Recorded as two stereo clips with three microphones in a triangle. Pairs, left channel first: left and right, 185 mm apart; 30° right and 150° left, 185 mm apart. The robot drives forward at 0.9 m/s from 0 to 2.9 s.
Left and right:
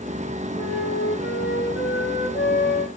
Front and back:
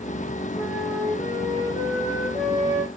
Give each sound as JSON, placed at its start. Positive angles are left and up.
{"t": 0.6, "sound": "a flute", "azimuth_deg": 65, "distance_m": 4.0}